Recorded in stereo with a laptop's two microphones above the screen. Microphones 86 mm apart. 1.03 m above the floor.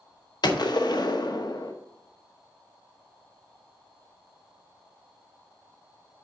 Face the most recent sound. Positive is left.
turn(degrees=55)  # may be behind; listen again after turning